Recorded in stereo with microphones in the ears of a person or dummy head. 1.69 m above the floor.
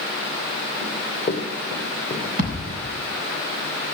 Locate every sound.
0.8 s running footsteps: 10° left (ahead or behind), 6 m
2.4 s a thud: 45° right (ahead or behind), 5.5 m